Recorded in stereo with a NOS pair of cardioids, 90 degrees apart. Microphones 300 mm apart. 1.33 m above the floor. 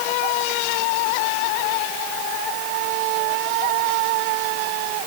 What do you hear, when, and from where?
Only background noise.